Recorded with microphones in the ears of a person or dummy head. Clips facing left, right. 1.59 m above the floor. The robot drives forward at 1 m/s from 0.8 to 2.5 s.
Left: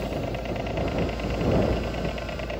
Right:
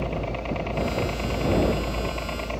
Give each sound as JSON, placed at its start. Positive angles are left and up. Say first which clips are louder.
{"t": 0.0, "sound": "a helicopter", "louder": "even", "side_deg": 15}